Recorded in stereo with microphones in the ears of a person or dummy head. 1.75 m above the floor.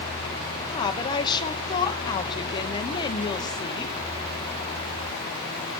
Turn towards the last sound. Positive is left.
turn(degrees=30)  # may be behind; listen again after turning